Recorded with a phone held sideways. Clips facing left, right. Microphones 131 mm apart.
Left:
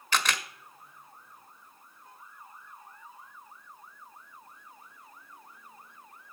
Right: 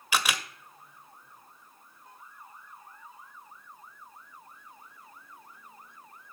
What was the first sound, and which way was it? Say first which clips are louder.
A camera shutter: even; 10° right (ahead or behind).